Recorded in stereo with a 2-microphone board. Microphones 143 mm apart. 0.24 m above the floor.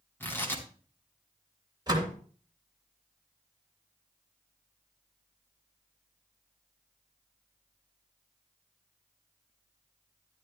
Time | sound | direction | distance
0.2 | tearing paper | 15° left (ahead or behind) | 2.5 m
1.9 | a door slam | 30° right (ahead or behind) | 2.5 m